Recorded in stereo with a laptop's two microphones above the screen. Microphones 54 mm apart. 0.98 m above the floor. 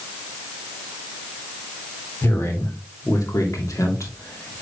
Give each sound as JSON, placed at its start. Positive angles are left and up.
{"t": 2.2, "sound": "a man speaking", "side_deg": 50, "distance_m": 3.5}